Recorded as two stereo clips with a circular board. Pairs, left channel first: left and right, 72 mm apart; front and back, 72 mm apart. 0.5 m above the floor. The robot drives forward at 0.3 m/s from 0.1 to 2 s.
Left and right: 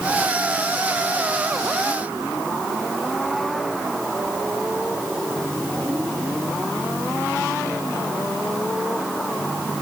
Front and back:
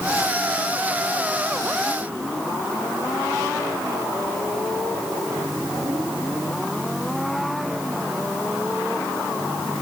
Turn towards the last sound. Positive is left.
No sound to turn to.